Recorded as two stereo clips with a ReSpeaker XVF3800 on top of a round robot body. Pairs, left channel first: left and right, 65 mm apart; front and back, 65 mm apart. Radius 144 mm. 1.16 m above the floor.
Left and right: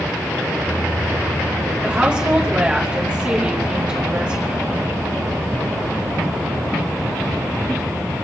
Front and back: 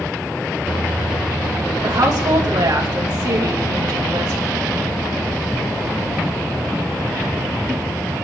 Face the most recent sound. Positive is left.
turn(degrees=-165)